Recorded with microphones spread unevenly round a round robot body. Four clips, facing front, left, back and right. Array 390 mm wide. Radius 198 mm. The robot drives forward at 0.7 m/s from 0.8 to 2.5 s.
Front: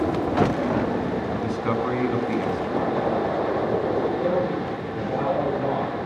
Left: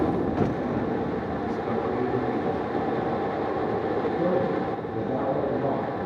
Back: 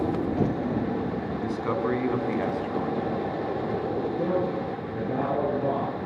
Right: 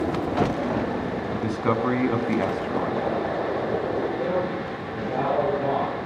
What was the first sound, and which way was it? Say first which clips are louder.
A man speaking: right 3 dB, front 3 dB; 80° right.